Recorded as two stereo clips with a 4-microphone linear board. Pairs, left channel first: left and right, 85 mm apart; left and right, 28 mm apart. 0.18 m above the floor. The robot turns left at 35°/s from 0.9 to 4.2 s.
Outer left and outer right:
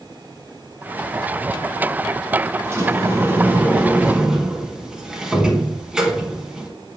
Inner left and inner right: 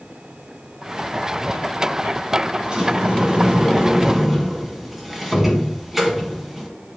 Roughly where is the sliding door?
Right.